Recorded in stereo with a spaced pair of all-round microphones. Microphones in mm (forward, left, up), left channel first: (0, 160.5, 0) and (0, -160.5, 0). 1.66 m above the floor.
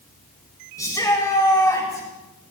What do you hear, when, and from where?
0.8 s a shout: 10° left (ahead or behind), 7.5 m